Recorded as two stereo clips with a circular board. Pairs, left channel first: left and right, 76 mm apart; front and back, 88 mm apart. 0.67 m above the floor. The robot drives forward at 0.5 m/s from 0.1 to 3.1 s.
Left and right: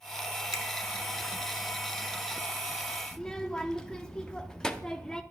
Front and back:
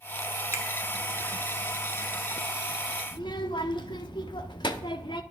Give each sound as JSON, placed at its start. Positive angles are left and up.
{"t": 0.5, "sound": "a finger snap", "azimuth_deg": 125, "distance_m": 1.1}
{"t": 3.1, "sound": "a child speaking", "azimuth_deg": 10, "distance_m": 0.7}